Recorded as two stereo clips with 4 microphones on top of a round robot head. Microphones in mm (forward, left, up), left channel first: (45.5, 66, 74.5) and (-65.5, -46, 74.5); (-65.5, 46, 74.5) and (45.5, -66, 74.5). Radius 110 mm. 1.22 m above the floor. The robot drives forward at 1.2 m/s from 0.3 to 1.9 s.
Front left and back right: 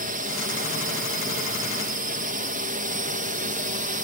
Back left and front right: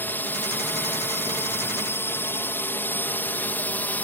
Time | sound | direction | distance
0.0 | a drone | 150° right | ?